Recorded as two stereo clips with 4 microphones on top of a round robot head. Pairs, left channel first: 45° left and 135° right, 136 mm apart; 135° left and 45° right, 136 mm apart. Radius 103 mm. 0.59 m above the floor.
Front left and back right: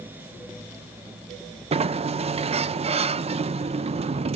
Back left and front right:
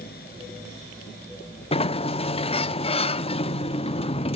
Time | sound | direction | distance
1.7 | a sliding door | straight behind | 0.6 m